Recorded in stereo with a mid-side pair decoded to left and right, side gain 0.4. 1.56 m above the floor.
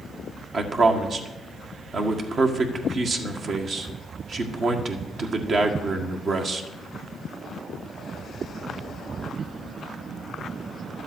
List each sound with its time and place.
0.5 s a man speaking: 60° right, 1.8 m